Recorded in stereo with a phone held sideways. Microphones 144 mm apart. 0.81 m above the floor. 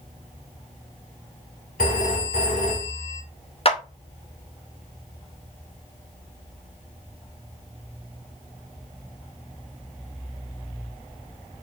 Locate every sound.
1.8 s a phone ringing: 75° left (ahead or behind), 2.5 m
3.6 s a clap: 45° left (ahead or behind), 0.8 m